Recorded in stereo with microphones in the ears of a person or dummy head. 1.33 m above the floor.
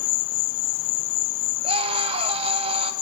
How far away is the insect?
About 1.0 m.